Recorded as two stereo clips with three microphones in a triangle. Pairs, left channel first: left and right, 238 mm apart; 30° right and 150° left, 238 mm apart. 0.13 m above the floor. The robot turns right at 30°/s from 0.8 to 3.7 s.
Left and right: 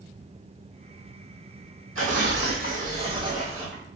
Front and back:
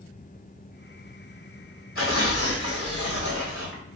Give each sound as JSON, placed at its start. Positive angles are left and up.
{"t": 1.9, "sound": "tearing paper", "azimuth_deg": -55, "distance_m": 1.2}